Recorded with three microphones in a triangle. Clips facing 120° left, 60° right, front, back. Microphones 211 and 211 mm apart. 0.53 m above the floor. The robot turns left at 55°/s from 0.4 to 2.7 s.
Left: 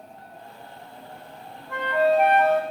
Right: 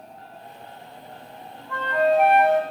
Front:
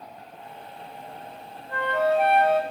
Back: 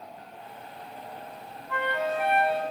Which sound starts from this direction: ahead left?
A flute, at 1.7 s.